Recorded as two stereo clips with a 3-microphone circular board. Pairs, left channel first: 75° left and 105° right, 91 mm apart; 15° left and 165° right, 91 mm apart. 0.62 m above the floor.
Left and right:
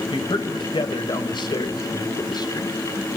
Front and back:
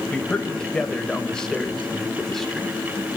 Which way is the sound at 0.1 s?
95° left.